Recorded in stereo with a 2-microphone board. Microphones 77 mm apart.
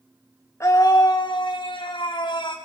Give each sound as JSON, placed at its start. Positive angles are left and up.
{"t": 0.6, "sound": "a scream", "side_deg": 35, "distance_m": 1.7}